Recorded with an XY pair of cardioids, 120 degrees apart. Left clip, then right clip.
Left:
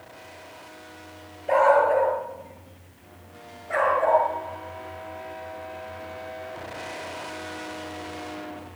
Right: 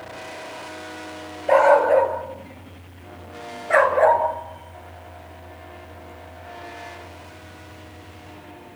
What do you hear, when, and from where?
1.5 s a dog barking: 35° right, 7 m; by 4.2 s 55° right, 5.5 m